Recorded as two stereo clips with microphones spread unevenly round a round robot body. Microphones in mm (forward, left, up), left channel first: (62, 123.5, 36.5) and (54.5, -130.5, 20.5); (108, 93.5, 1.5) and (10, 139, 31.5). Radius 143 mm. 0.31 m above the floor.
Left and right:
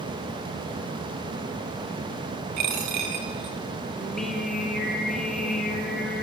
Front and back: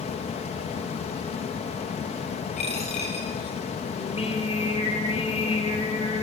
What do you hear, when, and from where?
2.6 s a dropped coin: 75° right, 3.5 m
4.0 s singing: straight ahead, 8 m